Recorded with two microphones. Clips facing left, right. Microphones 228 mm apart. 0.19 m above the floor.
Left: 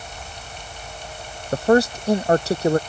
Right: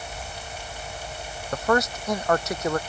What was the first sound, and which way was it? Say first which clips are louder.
A man speaking: left 7 dB; 30° left (ahead or behind).